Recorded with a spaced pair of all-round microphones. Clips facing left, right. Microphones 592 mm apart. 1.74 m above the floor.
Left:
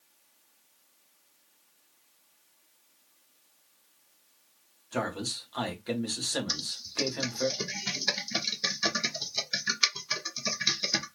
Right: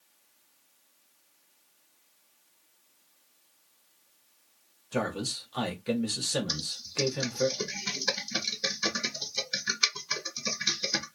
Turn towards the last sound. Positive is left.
turn(degrees=10)  # may be behind; listen again after turning